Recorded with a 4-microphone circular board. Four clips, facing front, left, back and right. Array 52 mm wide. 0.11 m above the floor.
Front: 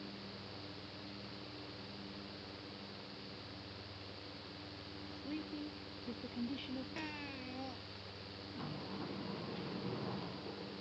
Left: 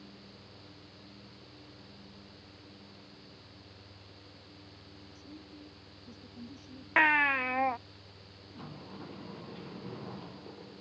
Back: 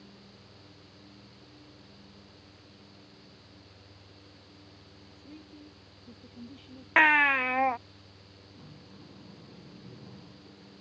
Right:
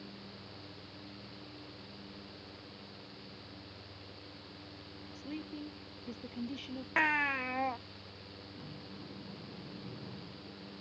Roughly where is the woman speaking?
Ahead right.